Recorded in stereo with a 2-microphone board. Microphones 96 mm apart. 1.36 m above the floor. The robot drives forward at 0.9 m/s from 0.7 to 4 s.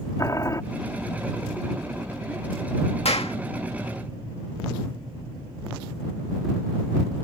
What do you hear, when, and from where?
0.2 s boiling: 35° left (ahead or behind)
3.0 s a clap: 85° left; by 3.4 s 80° left